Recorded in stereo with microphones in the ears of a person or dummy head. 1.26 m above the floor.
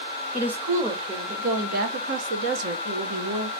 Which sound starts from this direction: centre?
A woman speaking, at 0.3 s.